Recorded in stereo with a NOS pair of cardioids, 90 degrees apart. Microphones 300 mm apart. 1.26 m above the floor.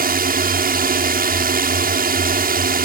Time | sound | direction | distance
0.0 | a drone | 30° right | ?